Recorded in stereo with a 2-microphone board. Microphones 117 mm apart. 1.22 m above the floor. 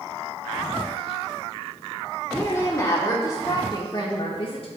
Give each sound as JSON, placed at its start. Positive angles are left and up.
{"t": 2.3, "sound": "a woman speaking", "side_deg": 10, "distance_m": 3.0}